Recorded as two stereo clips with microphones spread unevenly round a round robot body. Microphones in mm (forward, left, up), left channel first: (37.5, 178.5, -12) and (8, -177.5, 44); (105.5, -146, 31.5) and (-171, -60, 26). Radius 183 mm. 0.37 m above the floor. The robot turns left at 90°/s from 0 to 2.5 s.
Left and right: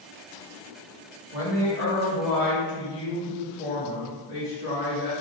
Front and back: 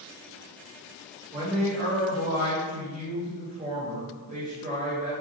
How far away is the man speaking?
About 1.3 m.